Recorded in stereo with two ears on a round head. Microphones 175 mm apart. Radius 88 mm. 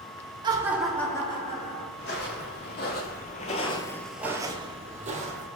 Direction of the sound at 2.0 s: 60° left (ahead or behind).